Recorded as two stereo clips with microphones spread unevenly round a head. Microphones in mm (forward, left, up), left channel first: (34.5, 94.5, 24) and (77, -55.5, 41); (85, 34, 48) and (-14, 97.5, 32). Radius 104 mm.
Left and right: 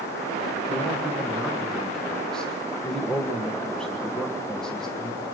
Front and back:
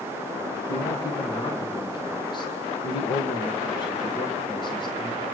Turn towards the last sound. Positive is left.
turn(degrees=20)